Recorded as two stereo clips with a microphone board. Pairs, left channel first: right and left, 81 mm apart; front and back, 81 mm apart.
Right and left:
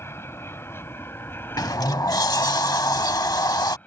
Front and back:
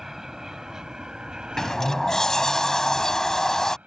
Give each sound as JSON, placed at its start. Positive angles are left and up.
{"t": 0.0, "sound": "an aircraft", "azimuth_deg": -100}
{"t": 1.6, "sound": "a sliding door", "azimuth_deg": -80}